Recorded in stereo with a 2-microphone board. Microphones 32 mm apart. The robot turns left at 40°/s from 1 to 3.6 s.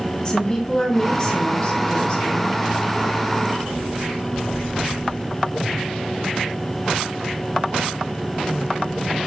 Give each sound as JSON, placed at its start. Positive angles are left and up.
{"t": 0.2, "sound": "a woman speaking", "side_deg": 20, "distance_m": 1.4}